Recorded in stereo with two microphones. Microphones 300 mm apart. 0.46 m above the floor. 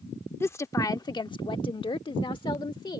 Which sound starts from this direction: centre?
A woman speaking, at 0.4 s.